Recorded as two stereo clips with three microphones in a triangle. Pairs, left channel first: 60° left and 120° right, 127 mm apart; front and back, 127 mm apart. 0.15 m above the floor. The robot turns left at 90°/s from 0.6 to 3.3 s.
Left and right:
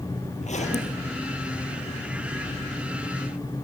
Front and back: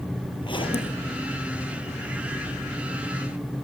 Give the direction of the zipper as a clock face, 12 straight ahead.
10 o'clock.